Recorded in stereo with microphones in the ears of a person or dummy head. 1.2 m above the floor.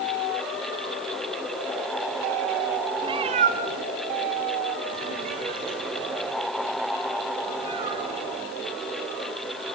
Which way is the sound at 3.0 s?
25° right (ahead or behind).